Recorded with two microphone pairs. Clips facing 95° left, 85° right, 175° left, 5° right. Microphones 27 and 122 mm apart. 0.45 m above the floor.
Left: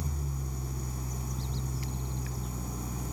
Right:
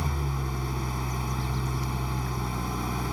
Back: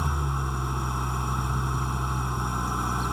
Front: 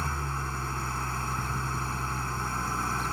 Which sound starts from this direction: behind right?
An engine running, at 0.0 s.